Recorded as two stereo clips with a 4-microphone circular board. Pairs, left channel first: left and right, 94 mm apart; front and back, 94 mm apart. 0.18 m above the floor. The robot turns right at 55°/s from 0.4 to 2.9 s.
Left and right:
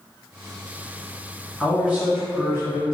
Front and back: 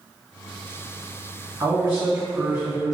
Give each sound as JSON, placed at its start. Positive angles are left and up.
{"t": 1.6, "sound": "a man speaking", "azimuth_deg": -170, "distance_m": 1.6}